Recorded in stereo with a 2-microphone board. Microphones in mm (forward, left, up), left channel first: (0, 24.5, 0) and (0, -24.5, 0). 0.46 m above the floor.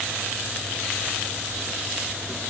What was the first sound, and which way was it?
Only background noise.